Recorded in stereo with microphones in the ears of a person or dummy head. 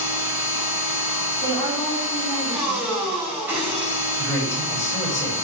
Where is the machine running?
15° right (ahead or behind), 5 m.